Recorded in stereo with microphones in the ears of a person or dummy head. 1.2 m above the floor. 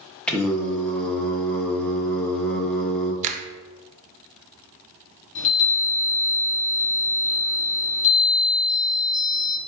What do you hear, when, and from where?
0.3 s singing: centre (ahead or behind), 0.6 m
3.2 s a finger snap: 40° right (ahead or behind), 0.5 m
5.3 s a chime: 60° left (ahead or behind), 1.6 m